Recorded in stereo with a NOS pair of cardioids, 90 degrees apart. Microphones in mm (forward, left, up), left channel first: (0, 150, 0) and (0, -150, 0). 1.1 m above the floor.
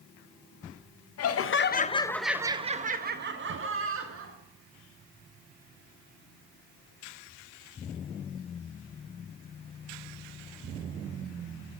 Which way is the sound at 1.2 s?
60° left.